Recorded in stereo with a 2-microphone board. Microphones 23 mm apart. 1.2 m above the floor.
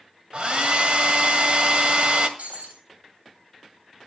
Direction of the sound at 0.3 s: 50° right (ahead or behind).